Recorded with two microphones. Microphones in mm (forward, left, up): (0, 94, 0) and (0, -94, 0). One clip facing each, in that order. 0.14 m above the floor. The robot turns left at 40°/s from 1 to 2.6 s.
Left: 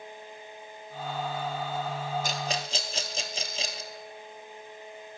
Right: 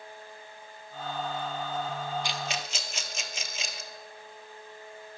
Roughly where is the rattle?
Left.